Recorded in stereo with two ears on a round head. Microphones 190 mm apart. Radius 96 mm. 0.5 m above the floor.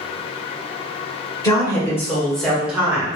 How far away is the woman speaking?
About 1.9 m.